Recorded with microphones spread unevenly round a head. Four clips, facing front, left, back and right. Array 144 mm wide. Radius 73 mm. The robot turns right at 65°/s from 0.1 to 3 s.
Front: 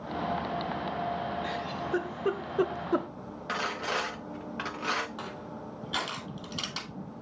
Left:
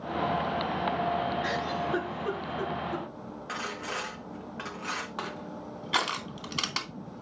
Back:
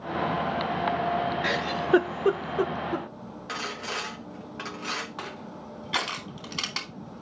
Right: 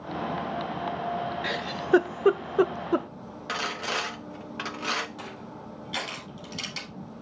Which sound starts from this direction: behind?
A giggle, at 1.4 s.